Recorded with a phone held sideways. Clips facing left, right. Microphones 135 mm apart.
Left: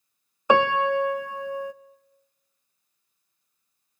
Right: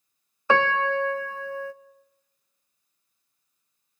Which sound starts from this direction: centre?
A piano, at 0.5 s.